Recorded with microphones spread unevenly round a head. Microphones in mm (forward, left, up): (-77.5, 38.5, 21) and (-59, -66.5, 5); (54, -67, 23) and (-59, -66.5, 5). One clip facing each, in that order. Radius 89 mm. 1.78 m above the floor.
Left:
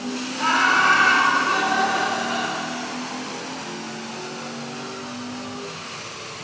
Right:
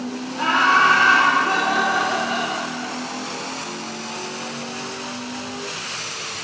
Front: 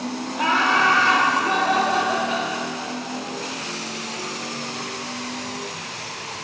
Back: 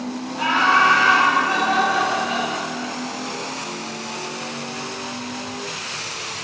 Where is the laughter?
30° right, 3.5 m.